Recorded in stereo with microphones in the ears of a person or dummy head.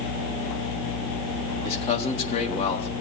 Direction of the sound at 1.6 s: 35° left (ahead or behind).